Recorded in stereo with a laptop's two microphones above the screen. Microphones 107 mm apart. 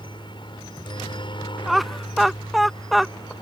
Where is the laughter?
Centre (ahead or behind).